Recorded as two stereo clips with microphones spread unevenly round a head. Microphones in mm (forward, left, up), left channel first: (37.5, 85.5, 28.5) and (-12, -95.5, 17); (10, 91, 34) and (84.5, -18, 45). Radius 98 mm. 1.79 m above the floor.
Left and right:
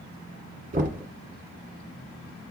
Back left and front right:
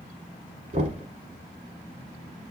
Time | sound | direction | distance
0.7 | knocking | 70° right | 1.0 m